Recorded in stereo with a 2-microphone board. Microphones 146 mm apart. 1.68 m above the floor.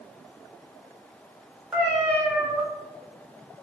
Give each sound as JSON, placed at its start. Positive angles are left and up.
{"t": 1.7, "sound": "a cat meowing", "side_deg": -5, "distance_m": 1.1}